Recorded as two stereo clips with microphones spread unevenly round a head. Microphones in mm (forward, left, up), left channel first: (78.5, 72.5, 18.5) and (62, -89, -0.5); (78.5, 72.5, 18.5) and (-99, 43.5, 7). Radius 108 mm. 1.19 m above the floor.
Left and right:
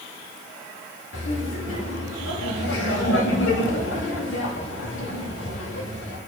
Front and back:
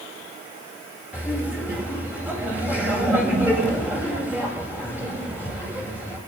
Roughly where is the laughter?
Left.